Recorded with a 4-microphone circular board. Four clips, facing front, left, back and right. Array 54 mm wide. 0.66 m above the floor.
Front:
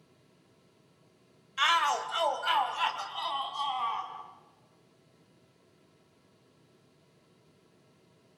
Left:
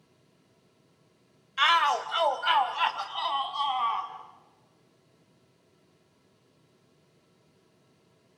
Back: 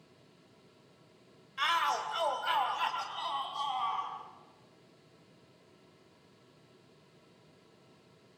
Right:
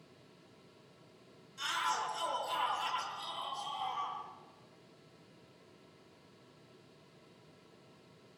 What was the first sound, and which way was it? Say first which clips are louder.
A shout: left 12 dB, front 4 dB; 75° left.